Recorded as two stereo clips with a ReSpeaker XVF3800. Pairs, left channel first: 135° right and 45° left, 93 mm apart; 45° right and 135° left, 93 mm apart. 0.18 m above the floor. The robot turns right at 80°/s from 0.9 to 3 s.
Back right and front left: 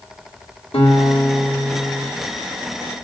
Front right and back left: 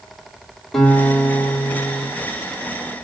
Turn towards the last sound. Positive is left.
turn(degrees=35)